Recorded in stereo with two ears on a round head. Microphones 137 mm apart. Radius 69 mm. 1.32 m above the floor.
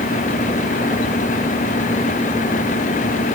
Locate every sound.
Only background noise.